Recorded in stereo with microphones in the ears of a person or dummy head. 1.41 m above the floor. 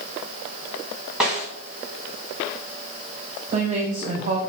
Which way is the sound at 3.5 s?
35° right (ahead or behind).